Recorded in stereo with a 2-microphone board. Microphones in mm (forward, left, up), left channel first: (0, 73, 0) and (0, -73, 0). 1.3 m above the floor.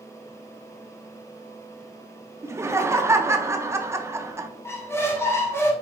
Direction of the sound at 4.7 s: 15° left (ahead or behind).